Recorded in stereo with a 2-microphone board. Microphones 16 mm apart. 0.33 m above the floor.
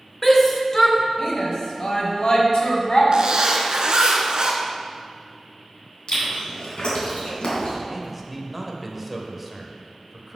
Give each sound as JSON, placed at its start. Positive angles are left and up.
{"t": 0.2, "sound": "a shout", "side_deg": 15, "distance_m": 1.1}
{"t": 3.1, "sound": "a zipper", "side_deg": -60, "distance_m": 1.2}
{"t": 6.1, "sound": "chewing", "side_deg": 70, "distance_m": 2.5}
{"t": 7.9, "sound": "a man speaking", "side_deg": -5, "distance_m": 0.9}